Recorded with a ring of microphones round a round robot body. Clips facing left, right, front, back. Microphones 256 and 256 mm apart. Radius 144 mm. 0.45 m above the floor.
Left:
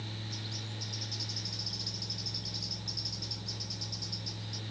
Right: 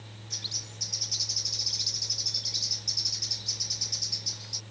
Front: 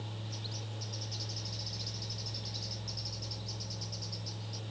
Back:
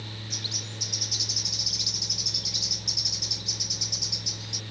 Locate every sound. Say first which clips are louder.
0.3 s a bird: left 5 dB, back 4 dB; 155° right